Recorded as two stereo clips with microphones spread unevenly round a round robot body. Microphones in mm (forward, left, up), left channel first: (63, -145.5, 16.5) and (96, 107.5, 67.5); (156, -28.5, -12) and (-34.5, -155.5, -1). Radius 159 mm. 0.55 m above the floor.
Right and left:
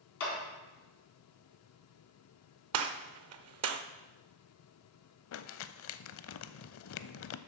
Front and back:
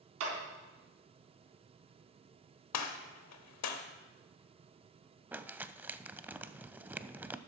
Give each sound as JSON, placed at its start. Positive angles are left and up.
{"t": 0.2, "sound": "a clap", "azimuth_deg": -145, "distance_m": 3.5}
{"t": 2.7, "sound": "a gunshot", "azimuth_deg": 55, "distance_m": 0.8}
{"t": 5.3, "sound": "crumpling", "azimuth_deg": -65, "distance_m": 0.5}